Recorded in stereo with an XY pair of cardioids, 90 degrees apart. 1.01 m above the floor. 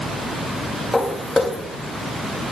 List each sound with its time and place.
0.9 s footsteps: 20° left, 5.5 m